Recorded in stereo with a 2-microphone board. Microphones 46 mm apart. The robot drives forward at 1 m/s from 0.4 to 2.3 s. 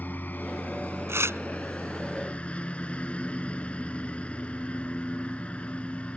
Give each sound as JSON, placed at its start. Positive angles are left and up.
{"t": 0.0, "sound": "a lawn mower", "side_deg": 40}
{"t": 1.1, "sound": "tearing paper", "side_deg": -70}